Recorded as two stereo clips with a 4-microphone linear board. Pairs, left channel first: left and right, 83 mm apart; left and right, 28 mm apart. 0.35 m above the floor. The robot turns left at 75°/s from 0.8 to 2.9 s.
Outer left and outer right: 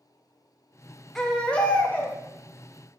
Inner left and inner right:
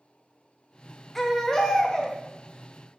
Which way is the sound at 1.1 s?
5° left (ahead or behind).